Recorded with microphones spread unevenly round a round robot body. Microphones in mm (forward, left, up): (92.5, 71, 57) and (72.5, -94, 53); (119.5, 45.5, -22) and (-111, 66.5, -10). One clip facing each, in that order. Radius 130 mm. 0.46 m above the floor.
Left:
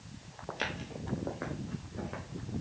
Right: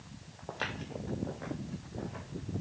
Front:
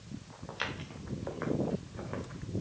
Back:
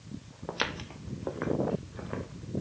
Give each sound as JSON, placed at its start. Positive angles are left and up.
{"t": 0.5, "sound": "footsteps", "azimuth_deg": 165, "distance_m": 0.9}